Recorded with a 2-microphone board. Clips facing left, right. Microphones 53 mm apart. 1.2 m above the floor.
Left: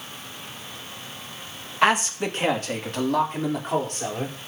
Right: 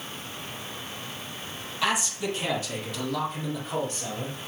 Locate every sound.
1.8 s a man speaking: 45° left (ahead or behind), 1.9 m; by 4.3 s 55° left (ahead or behind), 5 m